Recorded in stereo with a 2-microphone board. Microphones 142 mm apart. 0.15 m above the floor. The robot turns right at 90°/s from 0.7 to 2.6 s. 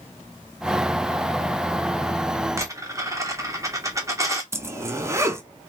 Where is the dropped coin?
20° right (ahead or behind), 1.2 m.